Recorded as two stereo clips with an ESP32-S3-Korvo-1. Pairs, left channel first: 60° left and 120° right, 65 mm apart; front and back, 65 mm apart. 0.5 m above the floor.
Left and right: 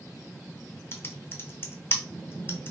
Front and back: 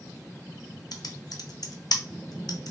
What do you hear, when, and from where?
0.9 s typing on a keyboard: 10° left, 0.6 m